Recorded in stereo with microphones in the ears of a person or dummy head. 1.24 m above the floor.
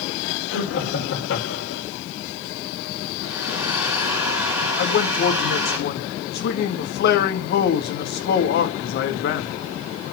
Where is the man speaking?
60° left (ahead or behind), 1.9 m.